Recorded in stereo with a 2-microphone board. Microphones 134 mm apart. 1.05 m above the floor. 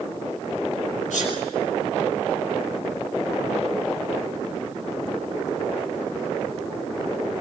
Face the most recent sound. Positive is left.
turn(degrees=85)